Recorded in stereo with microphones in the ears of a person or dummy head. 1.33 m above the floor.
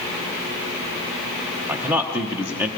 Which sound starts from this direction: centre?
A man speaking, at 1.7 s.